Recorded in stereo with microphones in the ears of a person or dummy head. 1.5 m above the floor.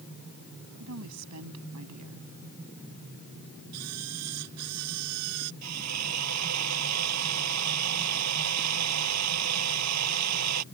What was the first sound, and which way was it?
A woman speaking, 85° right.